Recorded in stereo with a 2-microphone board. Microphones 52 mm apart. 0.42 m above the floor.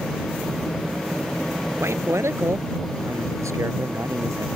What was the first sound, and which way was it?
A man speaking, 60° right (ahead or behind).